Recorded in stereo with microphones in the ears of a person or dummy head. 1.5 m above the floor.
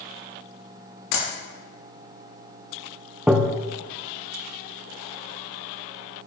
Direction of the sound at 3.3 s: 10° right (ahead or behind).